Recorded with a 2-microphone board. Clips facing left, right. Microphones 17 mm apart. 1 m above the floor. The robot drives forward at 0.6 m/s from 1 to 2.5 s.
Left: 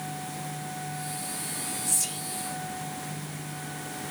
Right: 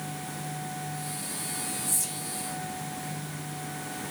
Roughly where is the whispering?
Left.